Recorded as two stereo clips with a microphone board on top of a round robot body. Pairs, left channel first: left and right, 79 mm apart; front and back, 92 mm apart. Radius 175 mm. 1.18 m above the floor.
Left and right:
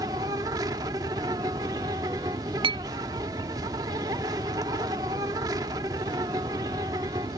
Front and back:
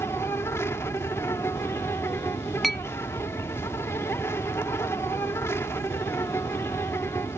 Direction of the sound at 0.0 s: 60° right.